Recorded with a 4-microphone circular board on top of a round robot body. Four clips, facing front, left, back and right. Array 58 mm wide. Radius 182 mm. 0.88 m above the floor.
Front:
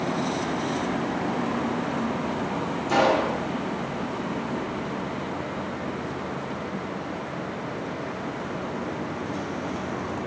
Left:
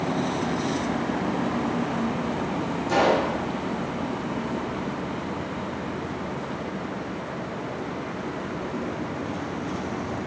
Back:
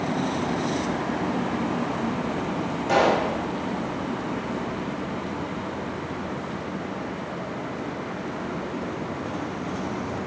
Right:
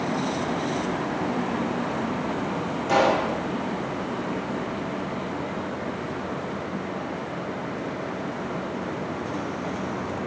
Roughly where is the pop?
Behind right.